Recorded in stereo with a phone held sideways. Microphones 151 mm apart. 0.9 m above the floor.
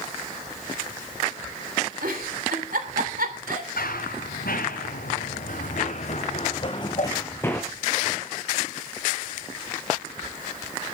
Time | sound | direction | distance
2.0 | a giggle | 75° right (ahead or behind) | 3 m
3.8 | running footsteps | 75° left (ahead or behind) | 4.5 m
6.6 | a whoosh | 55° left (ahead or behind) | 1.4 m